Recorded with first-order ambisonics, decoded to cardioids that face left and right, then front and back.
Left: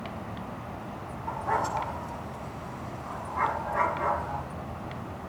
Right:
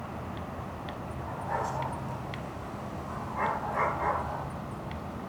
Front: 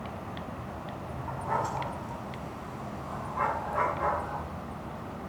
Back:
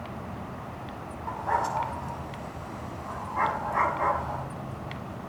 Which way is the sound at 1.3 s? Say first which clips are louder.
Left 5 dB, back 4 dB; 160° left.